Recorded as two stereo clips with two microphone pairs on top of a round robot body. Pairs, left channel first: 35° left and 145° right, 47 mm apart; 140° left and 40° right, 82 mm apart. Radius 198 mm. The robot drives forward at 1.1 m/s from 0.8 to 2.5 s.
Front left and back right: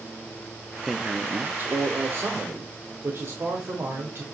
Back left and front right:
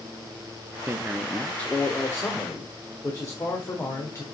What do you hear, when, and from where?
0.9 s a man speaking: 40° right, 0.9 m; by 4.2 s 175° right, 1.8 m